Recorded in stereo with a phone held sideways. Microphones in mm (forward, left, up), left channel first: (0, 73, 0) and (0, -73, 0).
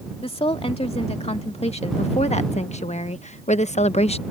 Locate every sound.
0.2 s a woman speaking: 40° left (ahead or behind); by 4.2 s 45° left (ahead or behind)